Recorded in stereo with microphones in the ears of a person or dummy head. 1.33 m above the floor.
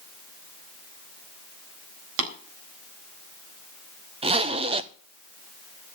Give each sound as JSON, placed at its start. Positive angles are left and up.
{"t": 2.2, "sound": "tapping", "side_deg": -80, "distance_m": 4.0}
{"t": 4.2, "sound": "a zipper", "side_deg": -20, "distance_m": 0.5}